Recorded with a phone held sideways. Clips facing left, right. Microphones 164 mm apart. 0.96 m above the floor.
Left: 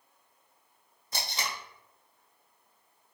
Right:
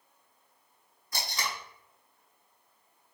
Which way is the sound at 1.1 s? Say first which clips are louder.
Even; 25° left (ahead or behind).